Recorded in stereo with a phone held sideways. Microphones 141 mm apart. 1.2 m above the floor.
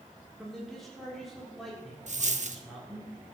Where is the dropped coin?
60° right (ahead or behind), 0.9 m.